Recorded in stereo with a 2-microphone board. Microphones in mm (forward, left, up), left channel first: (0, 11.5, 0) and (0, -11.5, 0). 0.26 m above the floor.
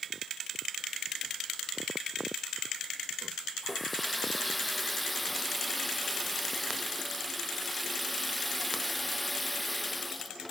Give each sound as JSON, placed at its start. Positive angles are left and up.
{"t": 3.6, "sound": "a running tap", "side_deg": 0}